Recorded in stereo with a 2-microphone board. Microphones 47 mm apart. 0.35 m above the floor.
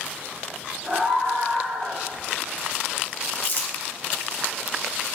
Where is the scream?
30° right (ahead or behind), 2 m; by 2.0 s 20° right (ahead or behind), 3 m.